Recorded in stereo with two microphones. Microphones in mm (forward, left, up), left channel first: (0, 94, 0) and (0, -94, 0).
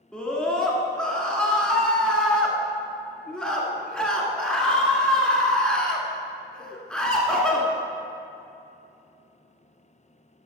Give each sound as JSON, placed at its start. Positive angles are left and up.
{"t": 0.1, "sound": "a scream", "side_deg": 5, "distance_m": 1.4}